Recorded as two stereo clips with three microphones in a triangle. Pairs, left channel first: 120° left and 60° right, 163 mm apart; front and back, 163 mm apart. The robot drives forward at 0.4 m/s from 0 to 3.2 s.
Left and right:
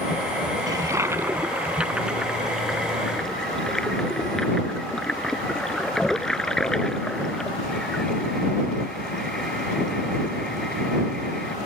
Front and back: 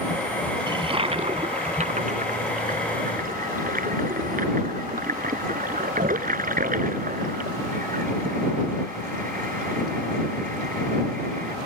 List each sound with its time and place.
0.7 s a toilet flushing: 125° right; by 11.6 s 155° right